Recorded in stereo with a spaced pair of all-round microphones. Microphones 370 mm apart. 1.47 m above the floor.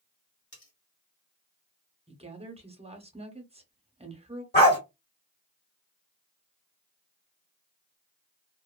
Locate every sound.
0.5 s cutlery clinking: 40° left (ahead or behind), 1.7 m
2.1 s a woman speaking: 15° right (ahead or behind), 0.7 m
4.5 s a dog barking: 30° left (ahead or behind), 1.3 m